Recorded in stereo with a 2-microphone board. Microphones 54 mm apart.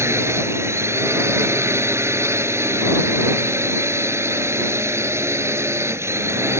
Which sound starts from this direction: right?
A drone, at 0.0 s.